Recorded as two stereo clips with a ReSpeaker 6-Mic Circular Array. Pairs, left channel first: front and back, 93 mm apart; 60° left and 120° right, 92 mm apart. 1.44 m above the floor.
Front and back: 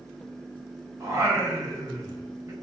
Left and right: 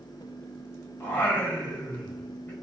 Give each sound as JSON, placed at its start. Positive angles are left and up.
{"t": 1.0, "sound": "singing", "azimuth_deg": 125, "distance_m": 0.7}